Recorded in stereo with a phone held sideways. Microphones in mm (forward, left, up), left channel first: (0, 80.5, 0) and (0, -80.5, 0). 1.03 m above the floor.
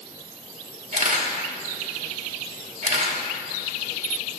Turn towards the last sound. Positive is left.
turn(degrees=-55)  # may be behind; listen again after turning